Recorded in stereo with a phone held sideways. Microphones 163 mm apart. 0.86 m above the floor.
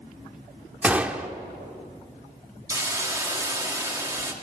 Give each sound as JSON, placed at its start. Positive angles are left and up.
{"t": 0.8, "sound": "a gunshot", "side_deg": -10, "distance_m": 1.0}
{"t": 2.7, "sound": "a hiss", "side_deg": -15, "distance_m": 1.9}